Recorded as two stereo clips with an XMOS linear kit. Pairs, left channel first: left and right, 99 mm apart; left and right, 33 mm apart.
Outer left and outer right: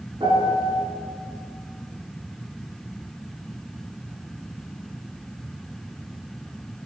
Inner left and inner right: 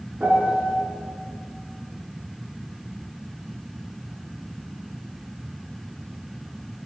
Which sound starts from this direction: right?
A piano, at 0.2 s.